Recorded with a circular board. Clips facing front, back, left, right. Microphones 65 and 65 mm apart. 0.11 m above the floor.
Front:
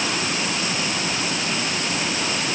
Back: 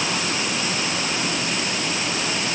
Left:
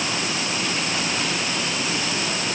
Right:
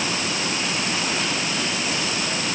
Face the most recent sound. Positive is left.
No sound to turn to.